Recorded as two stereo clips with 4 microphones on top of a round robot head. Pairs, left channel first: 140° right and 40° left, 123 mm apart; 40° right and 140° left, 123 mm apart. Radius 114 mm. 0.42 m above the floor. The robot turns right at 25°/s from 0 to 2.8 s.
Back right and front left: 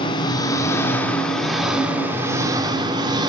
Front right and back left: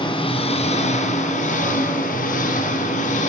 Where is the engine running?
90° right, 2 m; by 3.3 s 20° right, 2 m.